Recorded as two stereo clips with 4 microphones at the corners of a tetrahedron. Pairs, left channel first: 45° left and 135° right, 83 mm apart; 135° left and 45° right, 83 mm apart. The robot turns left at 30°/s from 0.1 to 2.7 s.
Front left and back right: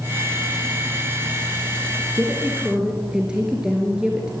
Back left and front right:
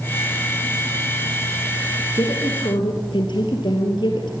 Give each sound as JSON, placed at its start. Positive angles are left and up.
{"t": 2.1, "sound": "a woman speaking", "azimuth_deg": 160, "distance_m": 4.0}